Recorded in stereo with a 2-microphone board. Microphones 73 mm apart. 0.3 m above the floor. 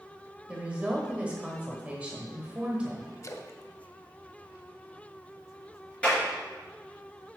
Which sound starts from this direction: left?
A splash, at 3.2 s.